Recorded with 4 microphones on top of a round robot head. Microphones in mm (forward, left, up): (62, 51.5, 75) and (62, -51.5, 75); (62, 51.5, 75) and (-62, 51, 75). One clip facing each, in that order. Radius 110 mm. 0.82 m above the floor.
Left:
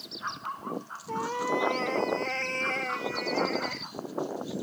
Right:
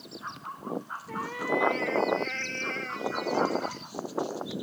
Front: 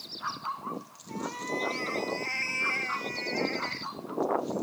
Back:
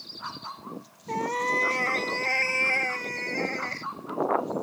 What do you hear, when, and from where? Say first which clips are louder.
1.1 s a cat meowing: left 2 dB, back 7 dB; 160° left; by 3.9 s 135° left